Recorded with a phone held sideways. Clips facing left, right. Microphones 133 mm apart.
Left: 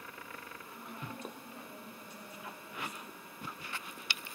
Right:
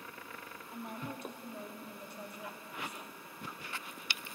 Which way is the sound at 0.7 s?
60° right (ahead or behind).